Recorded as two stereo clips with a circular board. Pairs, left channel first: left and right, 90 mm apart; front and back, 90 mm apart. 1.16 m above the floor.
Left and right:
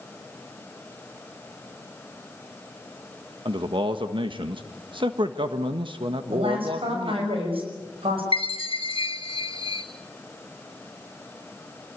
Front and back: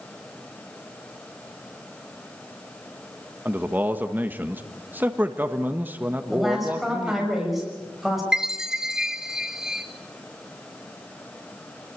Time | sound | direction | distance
3.5 | a man speaking | 110° right | 1.4 m
6.3 | a woman speaking | 90° right | 6.5 m
8.3 | a chime | 100° left | 2 m